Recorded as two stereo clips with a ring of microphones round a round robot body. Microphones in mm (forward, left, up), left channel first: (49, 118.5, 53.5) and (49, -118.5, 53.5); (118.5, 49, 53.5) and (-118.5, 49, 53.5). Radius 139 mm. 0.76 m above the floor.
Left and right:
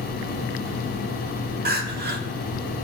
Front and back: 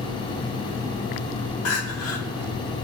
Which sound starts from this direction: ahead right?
Crying, at 1.6 s.